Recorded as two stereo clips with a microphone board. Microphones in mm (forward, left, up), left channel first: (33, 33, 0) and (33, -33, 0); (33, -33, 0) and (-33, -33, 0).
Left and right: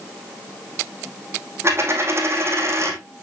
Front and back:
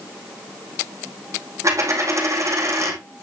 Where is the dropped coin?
140° right, 2 m.